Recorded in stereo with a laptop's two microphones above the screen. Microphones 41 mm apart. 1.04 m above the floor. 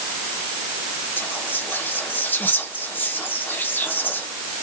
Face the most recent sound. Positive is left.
turn(degrees=50)  # may be behind; listen again after turning